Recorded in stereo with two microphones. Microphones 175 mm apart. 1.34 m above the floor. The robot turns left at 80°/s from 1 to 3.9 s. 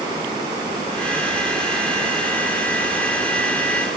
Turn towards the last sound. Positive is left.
No sound to turn to.